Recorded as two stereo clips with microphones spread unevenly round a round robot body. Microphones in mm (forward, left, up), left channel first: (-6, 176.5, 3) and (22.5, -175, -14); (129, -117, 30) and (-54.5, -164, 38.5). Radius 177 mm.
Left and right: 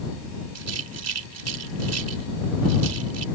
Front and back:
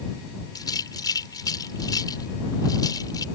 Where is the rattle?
50° right.